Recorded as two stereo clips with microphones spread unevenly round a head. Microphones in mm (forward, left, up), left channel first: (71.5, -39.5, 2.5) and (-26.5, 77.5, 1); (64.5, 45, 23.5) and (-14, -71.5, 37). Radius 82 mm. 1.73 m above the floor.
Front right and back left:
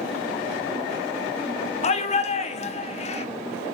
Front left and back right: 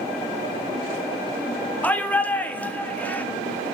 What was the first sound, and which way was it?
A shout, 25° right.